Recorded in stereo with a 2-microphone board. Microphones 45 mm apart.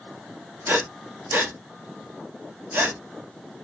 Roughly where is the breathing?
Right.